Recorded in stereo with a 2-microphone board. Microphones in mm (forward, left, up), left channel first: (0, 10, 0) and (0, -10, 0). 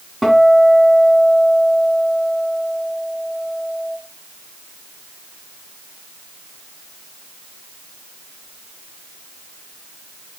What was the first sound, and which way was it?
A guitar, centre (ahead or behind).